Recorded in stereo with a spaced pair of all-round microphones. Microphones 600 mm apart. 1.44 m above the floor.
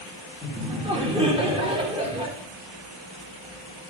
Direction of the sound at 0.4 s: 10° right (ahead or behind).